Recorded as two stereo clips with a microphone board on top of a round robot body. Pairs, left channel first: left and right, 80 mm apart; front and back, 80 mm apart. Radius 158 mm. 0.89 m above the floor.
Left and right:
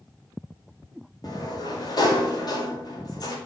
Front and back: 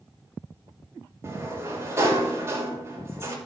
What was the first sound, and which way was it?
A sliding door, 120° left.